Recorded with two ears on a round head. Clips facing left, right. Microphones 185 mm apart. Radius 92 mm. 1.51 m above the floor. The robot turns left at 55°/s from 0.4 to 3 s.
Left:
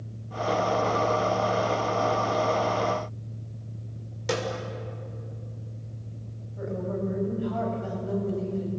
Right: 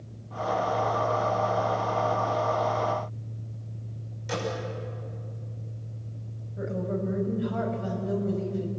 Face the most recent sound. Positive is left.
turn(degrees=-20)  # may be behind; listen again after turning